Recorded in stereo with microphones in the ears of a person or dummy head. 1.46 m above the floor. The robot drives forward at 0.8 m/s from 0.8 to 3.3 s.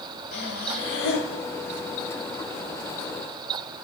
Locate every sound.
0.3 s breathing: 55° left (ahead or behind), 2.0 m